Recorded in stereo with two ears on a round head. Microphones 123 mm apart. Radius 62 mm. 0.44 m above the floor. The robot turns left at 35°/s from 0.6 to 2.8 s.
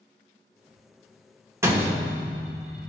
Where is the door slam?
20° right (ahead or behind), 0.6 m; by 2.9 s 5° right (ahead or behind), 0.6 m.